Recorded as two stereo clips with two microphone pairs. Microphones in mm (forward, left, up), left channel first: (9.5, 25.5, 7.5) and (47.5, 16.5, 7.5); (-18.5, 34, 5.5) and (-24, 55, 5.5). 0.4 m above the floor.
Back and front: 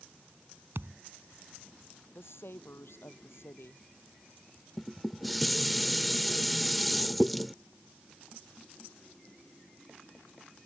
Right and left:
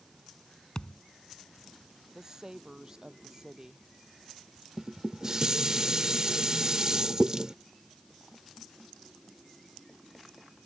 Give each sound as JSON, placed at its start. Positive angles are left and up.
{"t": 0.8, "sound": "a thud", "azimuth_deg": -20}
{"t": 2.1, "sound": "a woman speaking", "azimuth_deg": 165}
{"t": 4.8, "sound": "dishes clattering", "azimuth_deg": 70}